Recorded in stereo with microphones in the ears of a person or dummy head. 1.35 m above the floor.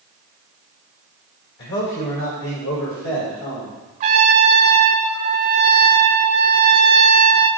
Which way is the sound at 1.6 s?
65° left (ahead or behind).